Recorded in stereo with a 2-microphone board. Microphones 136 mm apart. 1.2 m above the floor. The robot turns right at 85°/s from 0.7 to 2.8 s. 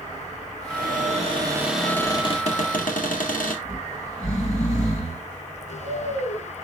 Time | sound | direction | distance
0.7 | a cupboard door | 95° right | 1.8 m
3.6 | snoring | 60° left (ahead or behind) | 6 m